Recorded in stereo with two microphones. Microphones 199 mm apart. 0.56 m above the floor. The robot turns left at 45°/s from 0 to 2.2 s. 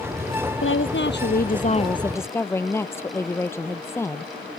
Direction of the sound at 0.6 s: 85° left.